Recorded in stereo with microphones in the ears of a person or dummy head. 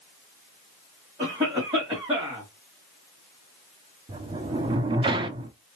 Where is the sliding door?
25° right (ahead or behind), 0.6 m.